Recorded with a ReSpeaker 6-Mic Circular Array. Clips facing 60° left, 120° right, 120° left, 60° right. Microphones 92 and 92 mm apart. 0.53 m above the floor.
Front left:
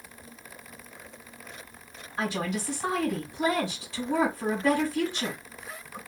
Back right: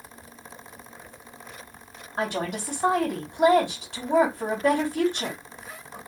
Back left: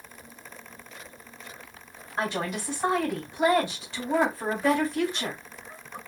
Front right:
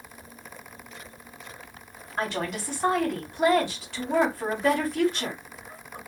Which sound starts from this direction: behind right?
A woman speaking, at 2.2 s.